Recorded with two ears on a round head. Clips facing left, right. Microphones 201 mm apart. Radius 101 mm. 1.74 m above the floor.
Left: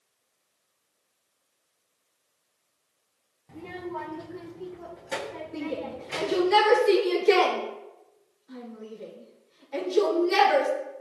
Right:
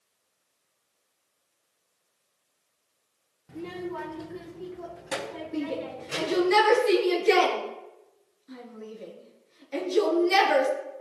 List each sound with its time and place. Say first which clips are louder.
3.5 s a child speaking: right 2 dB; 10° right (ahead or behind), 0.7 m; by 6.5 s 50° right (ahead or behind), 5 m
5.5 s a shout: right 2 dB; 45° right (ahead or behind), 3.5 m